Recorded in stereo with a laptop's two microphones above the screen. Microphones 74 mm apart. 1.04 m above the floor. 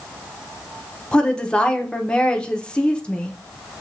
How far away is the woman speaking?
About 0.8 m.